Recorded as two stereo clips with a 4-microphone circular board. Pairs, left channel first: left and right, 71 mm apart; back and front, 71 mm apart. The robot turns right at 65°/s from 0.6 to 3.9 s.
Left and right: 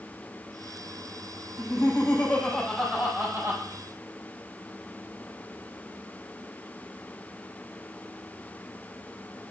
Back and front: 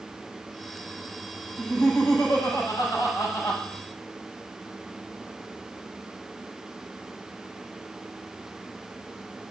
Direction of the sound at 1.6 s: 105° left.